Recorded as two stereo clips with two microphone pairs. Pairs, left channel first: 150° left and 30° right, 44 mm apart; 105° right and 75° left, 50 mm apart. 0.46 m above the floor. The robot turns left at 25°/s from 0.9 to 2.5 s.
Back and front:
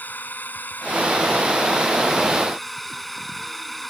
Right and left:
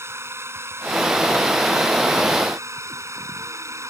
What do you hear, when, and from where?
0.0 s a drone: 105° left; by 3.9 s 65° left